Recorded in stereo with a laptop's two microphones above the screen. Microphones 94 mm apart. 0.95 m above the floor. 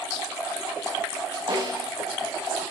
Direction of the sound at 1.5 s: 55° right (ahead or behind).